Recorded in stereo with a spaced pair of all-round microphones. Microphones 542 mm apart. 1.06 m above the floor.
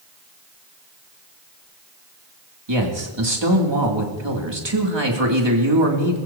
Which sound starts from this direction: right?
A man speaking, at 2.7 s.